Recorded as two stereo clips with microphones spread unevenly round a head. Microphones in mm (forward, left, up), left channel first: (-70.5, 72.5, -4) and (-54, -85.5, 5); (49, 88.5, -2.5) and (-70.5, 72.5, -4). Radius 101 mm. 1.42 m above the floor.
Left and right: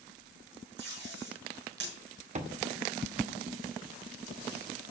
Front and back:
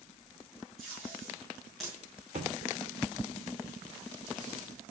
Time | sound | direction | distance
0.8 | tape being pulled | 80° right | 6 m
2.4 | a thud | 120° right | 1.9 m